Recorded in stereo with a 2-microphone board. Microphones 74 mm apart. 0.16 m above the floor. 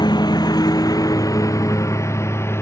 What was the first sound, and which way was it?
A lawn mower, 70° left (ahead or behind).